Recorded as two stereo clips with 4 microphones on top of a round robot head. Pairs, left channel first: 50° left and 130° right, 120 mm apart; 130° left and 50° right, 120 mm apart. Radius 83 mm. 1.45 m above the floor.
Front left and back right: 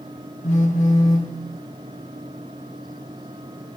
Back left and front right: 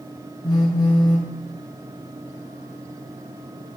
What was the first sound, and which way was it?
A phone buzzing, 75° left.